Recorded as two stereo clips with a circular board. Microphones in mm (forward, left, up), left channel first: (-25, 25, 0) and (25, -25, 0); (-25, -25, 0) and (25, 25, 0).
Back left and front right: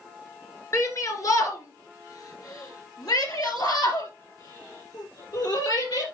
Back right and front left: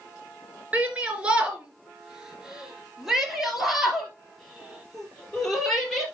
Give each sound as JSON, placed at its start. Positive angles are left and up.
{"t": 0.7, "sound": "a shout", "azimuth_deg": 110, "distance_m": 2.5}